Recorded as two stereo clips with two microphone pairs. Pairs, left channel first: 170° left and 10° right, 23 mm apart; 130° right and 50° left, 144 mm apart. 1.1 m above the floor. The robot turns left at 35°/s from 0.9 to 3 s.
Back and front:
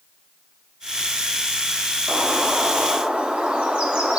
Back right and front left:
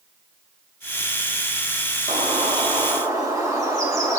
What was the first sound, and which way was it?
A bird, 20° left.